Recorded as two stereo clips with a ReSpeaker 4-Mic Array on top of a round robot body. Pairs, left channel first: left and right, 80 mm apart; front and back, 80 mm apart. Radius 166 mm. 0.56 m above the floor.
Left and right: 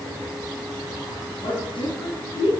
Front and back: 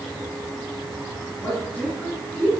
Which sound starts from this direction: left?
A woman speaking, at 1.4 s.